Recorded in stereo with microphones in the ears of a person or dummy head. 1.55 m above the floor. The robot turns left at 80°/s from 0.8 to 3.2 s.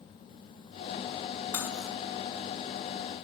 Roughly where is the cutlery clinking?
Centre.